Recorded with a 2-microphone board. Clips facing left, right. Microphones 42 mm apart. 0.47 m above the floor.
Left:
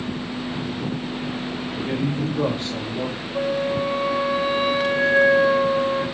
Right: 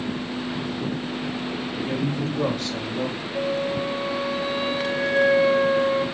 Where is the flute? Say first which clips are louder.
Left 3 dB; 80° left, 1.8 m.